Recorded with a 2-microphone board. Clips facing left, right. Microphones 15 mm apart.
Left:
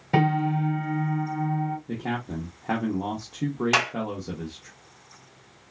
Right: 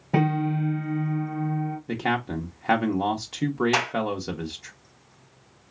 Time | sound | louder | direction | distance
0.1 | a piano | left 1 dB | 55° left (ahead or behind) | 2.0 m
1.9 | a man speaking | right 4 dB | 40° right (ahead or behind) | 0.7 m
3.7 | a clap | left 2 dB | 25° left (ahead or behind) | 1.4 m